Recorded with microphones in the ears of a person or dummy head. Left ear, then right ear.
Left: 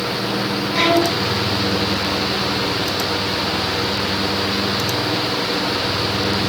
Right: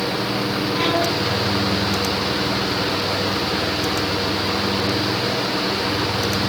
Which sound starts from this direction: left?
A violin, at 0.7 s.